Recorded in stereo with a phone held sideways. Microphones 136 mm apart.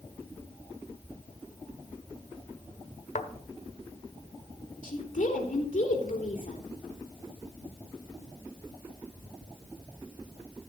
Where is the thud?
75° left (ahead or behind), 1.5 m.